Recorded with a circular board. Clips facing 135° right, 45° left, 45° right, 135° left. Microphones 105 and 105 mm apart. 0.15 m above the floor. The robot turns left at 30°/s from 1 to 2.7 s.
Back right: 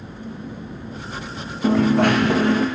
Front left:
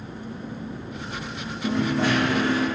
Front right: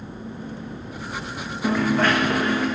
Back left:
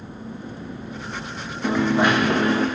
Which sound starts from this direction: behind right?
A dropped coin, at 1.6 s.